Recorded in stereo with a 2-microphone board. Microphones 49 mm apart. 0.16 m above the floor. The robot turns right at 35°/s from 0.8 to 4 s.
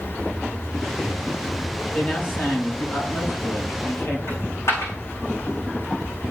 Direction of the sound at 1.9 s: 40° left.